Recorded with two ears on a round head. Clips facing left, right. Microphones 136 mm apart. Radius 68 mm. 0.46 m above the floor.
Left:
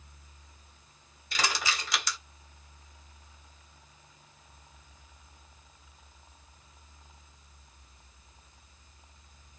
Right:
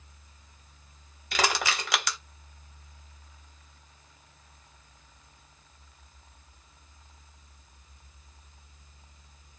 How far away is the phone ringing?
I don't hear a phone ringing.